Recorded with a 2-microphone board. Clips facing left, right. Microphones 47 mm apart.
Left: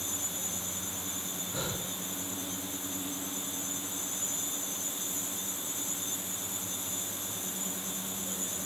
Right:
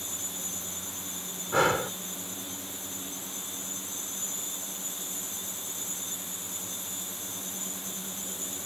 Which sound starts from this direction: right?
Breathing, at 1.5 s.